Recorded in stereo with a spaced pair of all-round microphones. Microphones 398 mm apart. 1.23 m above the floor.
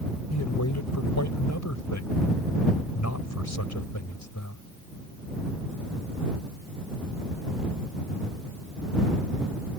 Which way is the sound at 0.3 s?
45° left (ahead or behind).